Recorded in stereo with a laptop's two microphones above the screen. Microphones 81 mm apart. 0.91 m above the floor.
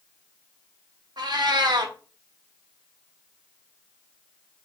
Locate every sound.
1.2 s a cat meowing: 65° right (ahead or behind), 0.6 m